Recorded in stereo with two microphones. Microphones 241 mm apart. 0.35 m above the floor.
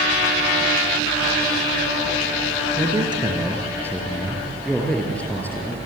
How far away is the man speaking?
About 4.5 m.